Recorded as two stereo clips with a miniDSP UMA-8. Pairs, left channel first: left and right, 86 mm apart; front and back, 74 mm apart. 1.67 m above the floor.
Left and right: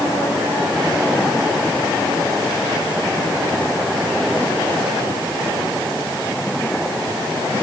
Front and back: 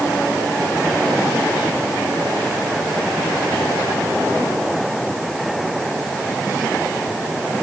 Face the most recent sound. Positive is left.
No sound to turn to.